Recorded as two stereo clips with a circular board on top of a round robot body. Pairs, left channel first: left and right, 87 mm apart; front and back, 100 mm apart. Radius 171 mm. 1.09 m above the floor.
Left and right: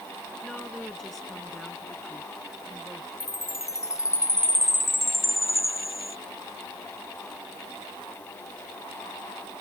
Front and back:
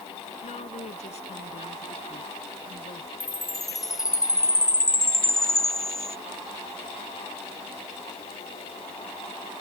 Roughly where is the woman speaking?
Ahead.